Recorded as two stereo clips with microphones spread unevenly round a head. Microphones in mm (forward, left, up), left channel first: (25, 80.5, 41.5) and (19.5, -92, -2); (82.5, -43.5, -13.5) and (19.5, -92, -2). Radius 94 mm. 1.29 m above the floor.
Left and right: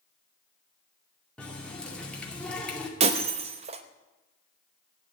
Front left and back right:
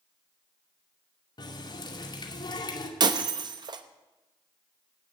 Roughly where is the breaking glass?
Behind right.